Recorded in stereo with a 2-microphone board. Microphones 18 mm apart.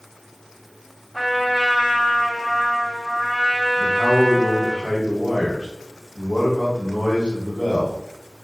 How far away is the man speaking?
About 1.1 m.